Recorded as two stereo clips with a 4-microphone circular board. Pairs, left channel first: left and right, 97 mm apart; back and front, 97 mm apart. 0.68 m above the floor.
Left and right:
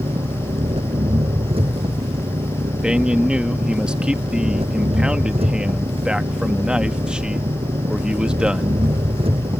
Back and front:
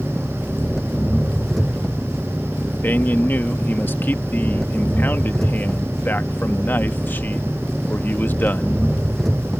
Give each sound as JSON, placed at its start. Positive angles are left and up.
{"t": 0.0, "sound": "an engine running", "azimuth_deg": -95}
{"t": 2.8, "sound": "a man speaking", "azimuth_deg": -155}